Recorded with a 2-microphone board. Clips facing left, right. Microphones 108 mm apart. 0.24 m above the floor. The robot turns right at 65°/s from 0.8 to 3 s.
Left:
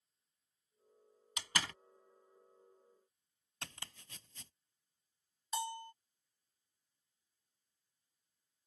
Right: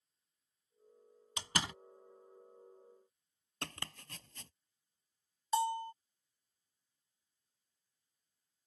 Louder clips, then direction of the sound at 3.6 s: Right 6 dB; 65° right (ahead or behind).